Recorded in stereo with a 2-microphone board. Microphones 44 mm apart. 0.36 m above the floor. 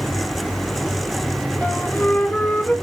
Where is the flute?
45° left (ahead or behind), 0.9 m.